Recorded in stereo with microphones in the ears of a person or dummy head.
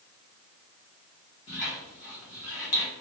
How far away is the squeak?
About 1.2 m.